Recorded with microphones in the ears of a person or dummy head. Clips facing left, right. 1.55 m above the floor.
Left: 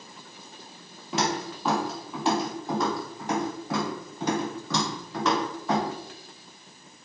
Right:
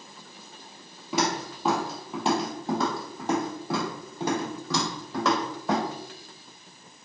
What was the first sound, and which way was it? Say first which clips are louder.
Footsteps: right 1 dB; 10° right (ahead or behind).